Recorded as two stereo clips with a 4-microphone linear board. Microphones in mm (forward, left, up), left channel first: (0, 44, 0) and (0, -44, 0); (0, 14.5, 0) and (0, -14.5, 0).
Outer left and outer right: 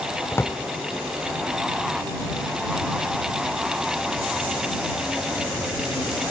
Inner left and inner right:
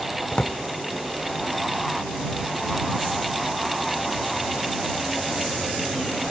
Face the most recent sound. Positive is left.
turn(degrees=30)  # may be behind; listen again after turning